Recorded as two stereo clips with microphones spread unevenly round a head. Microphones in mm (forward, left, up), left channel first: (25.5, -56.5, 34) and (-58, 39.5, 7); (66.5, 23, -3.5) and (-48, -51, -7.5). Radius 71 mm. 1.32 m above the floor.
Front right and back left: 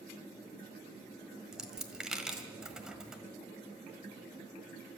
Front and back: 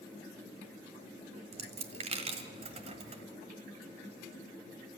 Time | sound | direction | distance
1.5 | a dropped coin | 130° right | 1.4 m